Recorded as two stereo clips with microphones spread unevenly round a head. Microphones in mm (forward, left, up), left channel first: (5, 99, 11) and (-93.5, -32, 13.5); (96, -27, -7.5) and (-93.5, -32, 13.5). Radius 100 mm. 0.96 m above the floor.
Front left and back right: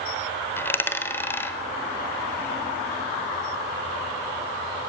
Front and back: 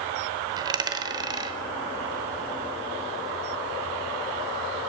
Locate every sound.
0.6 s a dropped coin: 125° left, 0.8 m